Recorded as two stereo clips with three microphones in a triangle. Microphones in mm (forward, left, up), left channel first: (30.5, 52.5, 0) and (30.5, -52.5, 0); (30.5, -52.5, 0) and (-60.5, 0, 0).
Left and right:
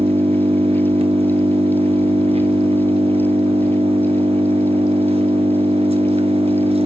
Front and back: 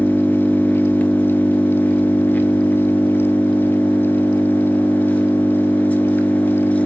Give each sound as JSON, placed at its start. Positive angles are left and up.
{"t": 0.0, "sound": "an engine running", "azimuth_deg": -105, "distance_m": 1.6}